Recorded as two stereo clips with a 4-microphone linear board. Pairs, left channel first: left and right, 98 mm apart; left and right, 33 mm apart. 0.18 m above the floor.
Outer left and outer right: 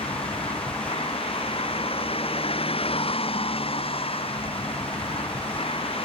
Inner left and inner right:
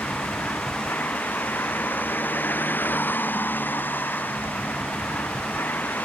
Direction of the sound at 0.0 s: 75° left (ahead or behind).